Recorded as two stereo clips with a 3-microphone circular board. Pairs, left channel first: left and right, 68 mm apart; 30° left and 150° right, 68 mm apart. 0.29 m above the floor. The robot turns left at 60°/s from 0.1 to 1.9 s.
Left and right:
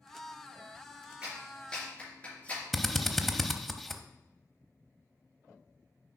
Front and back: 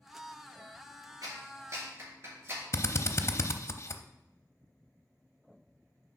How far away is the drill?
About 0.5 m.